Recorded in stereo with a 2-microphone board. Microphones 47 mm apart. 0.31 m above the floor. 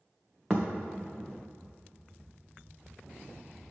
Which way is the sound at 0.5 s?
Centre (ahead or behind).